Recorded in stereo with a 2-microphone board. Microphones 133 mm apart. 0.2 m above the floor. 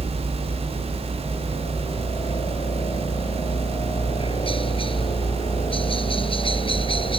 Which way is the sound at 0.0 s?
40° left (ahead or behind).